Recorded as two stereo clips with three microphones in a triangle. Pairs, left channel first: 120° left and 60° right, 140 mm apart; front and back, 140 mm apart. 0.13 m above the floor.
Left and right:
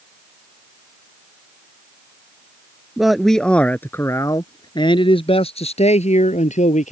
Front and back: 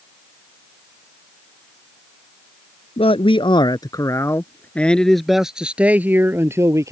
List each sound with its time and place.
3.0 s a man speaking: 25° left; by 6.9 s 115° left